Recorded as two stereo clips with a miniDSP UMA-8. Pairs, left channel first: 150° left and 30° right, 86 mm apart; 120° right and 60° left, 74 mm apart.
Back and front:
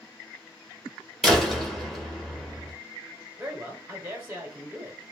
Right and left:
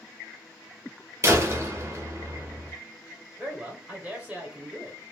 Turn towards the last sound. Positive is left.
turn(degrees=10)